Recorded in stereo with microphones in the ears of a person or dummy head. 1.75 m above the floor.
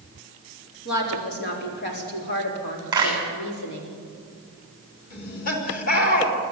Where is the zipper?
I don't hear a zipper.